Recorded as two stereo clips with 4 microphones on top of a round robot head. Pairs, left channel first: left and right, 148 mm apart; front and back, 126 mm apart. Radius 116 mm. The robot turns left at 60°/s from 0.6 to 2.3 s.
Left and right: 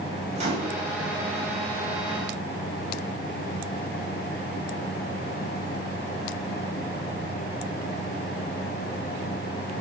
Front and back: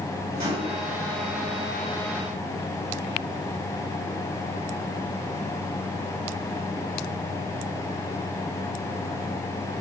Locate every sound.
0.3 s a microwave: 135° right, 5.5 m; by 0.8 s 145° right, 5.5 m